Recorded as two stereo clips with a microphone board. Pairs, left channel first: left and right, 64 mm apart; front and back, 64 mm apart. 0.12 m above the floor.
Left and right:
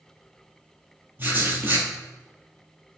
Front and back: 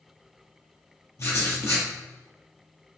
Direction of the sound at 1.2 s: 35° right.